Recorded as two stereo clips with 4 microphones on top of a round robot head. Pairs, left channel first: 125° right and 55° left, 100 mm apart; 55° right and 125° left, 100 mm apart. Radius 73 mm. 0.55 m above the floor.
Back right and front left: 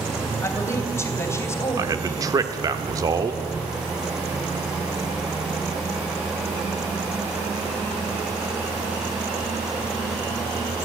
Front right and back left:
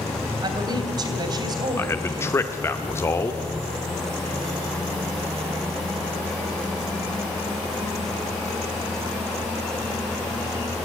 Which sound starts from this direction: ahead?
A man speaking, at 1.8 s.